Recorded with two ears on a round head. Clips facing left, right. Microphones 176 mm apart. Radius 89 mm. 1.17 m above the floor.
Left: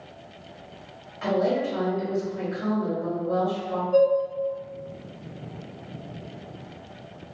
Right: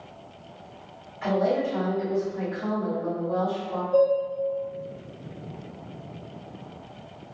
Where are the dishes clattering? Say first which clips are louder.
Left 1 dB; 60° left (ahead or behind), 1.6 m.